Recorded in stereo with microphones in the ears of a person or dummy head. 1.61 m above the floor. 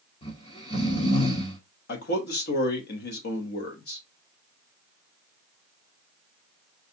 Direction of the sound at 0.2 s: 30° left (ahead or behind).